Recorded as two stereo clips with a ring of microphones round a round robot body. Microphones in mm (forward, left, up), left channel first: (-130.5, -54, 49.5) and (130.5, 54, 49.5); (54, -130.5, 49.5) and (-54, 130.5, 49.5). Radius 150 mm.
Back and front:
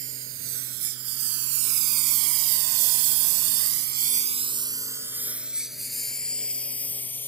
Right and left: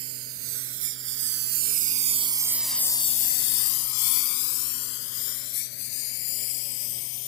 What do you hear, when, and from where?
0.0 s a lawn mower: 70° left; by 7.3 s 75° right